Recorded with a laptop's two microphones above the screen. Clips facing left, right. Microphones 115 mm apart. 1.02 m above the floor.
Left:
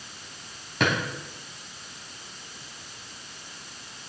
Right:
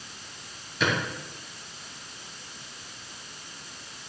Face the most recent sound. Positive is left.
turn(degrees=75)  # may be behind; listen again after turning